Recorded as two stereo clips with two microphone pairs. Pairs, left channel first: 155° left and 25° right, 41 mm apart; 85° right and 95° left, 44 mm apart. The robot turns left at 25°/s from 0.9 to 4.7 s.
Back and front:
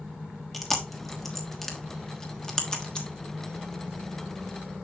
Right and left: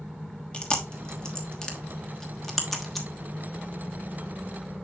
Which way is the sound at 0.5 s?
115° right.